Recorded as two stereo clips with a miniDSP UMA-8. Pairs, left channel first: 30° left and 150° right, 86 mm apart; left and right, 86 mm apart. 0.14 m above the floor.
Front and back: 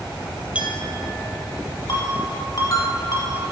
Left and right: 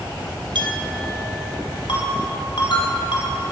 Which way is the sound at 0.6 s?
75° right.